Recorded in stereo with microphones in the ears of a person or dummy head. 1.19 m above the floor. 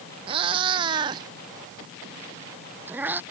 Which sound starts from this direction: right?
A cat meowing, at 0.3 s.